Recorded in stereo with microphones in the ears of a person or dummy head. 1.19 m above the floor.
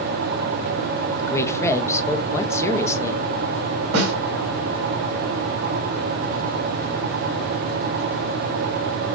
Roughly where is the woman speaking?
Centre.